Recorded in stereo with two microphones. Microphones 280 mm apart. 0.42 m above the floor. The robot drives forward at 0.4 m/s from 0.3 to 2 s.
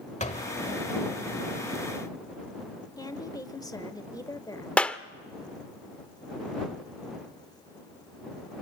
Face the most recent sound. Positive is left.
turn(degrees=5)  # may be behind; listen again after turning